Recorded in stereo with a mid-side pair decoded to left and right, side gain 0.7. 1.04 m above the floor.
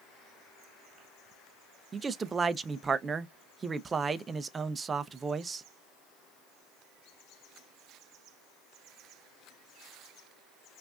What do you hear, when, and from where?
1.9 s a man speaking: 25° right, 0.6 m